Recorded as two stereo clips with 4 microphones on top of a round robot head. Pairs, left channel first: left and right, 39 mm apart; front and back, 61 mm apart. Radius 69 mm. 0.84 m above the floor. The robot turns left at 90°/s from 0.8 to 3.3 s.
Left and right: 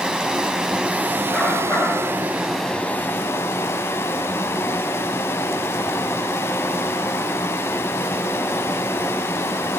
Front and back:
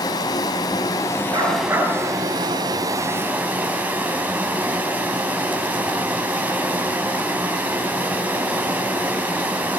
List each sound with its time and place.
0.0 s running water: 20° right, 3.5 m; by 9.8 s 115° left, 3.5 m
1.3 s a dog barking: 165° left, 6.5 m; by 1.9 s 110° left, 6.5 m